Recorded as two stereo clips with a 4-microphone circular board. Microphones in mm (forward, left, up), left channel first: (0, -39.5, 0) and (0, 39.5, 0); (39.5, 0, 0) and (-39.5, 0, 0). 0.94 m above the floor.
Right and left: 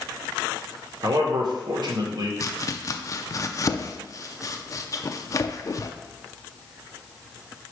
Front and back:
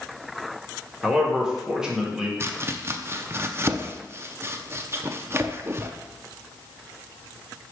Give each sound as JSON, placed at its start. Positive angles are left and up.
{"t": 1.0, "sound": "a man speaking", "azimuth_deg": 100, "distance_m": 1.6}
{"t": 2.4, "sound": "chopping", "azimuth_deg": -130, "distance_m": 0.5}